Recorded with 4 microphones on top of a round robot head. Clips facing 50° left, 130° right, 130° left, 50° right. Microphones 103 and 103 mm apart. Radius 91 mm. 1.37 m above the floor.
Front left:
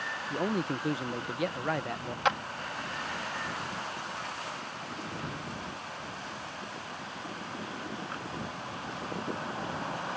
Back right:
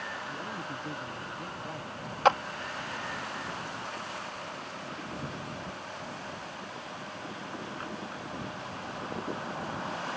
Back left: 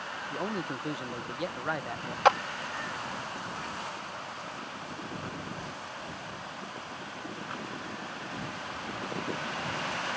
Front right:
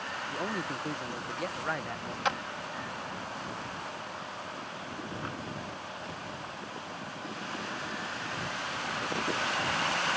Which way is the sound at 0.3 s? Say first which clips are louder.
Front left 7 dB, back left 1 dB; 50° left.